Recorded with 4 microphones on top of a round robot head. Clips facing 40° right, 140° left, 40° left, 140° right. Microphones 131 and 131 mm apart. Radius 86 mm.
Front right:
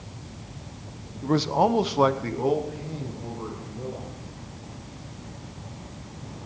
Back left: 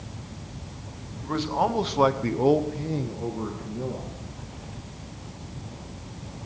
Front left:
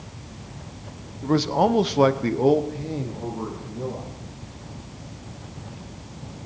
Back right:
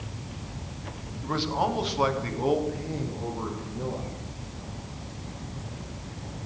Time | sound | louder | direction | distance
1.2 | a man speaking | front right 4 dB, front left 7 dB | 5° right | 1.1 m